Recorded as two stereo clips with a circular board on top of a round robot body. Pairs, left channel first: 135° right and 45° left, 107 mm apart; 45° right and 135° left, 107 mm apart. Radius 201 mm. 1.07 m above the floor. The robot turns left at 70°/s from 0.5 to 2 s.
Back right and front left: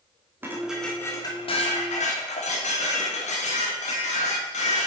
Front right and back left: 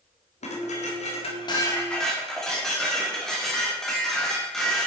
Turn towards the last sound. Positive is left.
turn(degrees=-130)